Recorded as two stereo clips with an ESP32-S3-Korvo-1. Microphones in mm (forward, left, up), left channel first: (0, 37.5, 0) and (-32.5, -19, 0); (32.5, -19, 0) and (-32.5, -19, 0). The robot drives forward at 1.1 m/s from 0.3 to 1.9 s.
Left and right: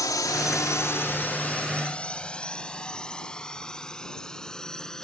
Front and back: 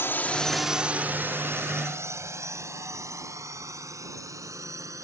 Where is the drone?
45° left; by 5.0 s 140° left.